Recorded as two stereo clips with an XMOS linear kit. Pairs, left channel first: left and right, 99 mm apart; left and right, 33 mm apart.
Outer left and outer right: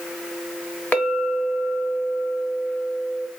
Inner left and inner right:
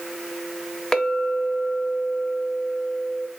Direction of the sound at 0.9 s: 15° left (ahead or behind).